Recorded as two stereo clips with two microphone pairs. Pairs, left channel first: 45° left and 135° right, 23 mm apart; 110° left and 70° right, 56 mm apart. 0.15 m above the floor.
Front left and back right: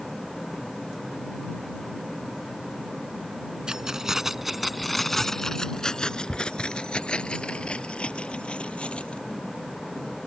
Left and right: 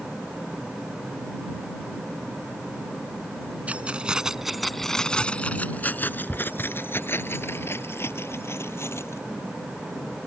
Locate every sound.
3.7 s keys jangling: 115° right; by 9.2 s 70° left